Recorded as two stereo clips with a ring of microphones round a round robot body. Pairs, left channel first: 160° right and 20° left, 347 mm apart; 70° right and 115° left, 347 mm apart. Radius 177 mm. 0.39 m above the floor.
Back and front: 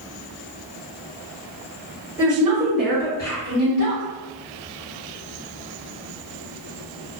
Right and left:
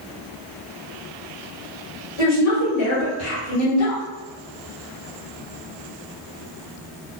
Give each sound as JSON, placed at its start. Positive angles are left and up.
{"t": 2.2, "sound": "a woman speaking", "azimuth_deg": -65, "distance_m": 2.0}